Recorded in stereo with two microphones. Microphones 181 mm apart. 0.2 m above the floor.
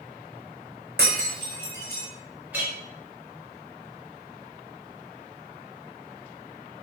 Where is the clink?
10° right (ahead or behind), 0.9 m.